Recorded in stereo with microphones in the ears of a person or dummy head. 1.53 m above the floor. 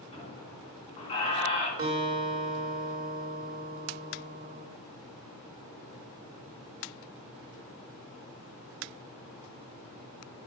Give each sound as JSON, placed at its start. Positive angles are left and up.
{"t": 0.1, "sound": "a squeak", "side_deg": 35, "distance_m": 3.5}
{"t": 1.8, "sound": "a guitar", "side_deg": -20, "distance_m": 1.8}